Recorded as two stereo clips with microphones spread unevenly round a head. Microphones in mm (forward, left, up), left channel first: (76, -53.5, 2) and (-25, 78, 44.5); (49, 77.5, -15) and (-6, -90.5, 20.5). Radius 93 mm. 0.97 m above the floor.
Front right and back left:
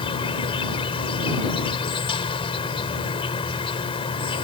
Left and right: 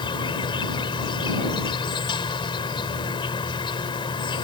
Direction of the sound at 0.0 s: 5° left.